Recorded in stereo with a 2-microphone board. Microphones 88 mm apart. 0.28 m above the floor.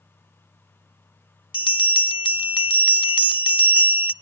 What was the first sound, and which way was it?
A bell, 70° left (ahead or behind).